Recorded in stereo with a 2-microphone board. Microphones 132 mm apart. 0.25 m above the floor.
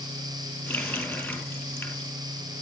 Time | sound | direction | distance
0.7 | a running tap | 10° left (ahead or behind) | 4 m